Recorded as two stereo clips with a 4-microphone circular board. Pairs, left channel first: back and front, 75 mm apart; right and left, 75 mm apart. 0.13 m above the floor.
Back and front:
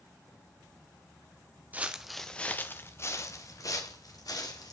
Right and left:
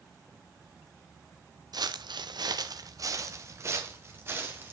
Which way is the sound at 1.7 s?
65° left.